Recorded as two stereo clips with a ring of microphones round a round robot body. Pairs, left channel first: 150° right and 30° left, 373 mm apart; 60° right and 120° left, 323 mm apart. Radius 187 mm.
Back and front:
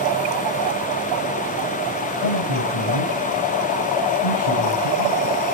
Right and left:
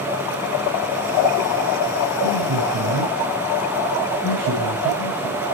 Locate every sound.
2.1 s a man speaking: 175° right, 8.5 m